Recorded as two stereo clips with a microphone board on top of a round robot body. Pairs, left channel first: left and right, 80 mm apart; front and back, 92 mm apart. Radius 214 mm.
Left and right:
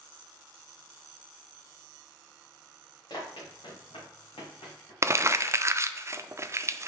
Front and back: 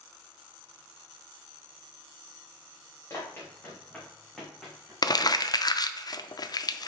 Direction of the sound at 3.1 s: 65° left.